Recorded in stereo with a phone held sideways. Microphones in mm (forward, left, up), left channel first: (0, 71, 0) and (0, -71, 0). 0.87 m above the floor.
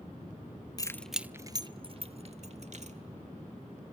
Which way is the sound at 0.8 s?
25° left (ahead or behind).